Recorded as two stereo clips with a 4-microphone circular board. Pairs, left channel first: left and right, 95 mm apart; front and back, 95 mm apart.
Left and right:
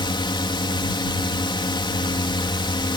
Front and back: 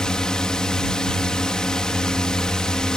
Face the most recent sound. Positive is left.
turn(degrees=80)